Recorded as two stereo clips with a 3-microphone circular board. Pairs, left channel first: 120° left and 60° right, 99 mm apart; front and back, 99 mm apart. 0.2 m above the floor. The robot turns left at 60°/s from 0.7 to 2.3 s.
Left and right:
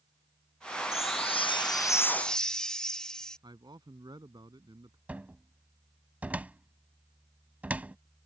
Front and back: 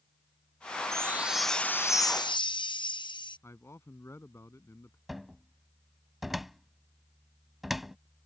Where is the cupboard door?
95° right.